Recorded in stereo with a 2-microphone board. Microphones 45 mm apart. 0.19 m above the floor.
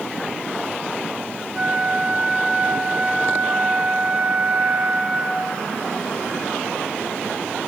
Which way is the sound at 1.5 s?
30° right (ahead or behind).